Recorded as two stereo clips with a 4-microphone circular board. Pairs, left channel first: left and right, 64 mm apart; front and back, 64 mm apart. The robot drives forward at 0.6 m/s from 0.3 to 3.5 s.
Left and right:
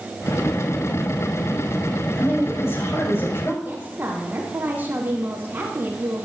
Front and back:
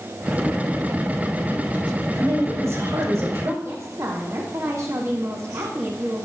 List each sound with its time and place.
2.1 s a woman speaking: 135° left, 7 m; by 3.5 s 140° left, 7.5 m
3.6 s a woman speaking: 150° right, 5 m